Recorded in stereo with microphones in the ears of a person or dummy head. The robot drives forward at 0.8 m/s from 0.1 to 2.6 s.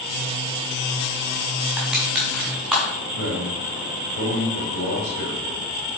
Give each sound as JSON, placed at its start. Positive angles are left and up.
{"t": 1.8, "sound": "crushing", "side_deg": 0, "distance_m": 1.6}
{"t": 3.1, "sound": "a man speaking", "side_deg": 60, "distance_m": 3.0}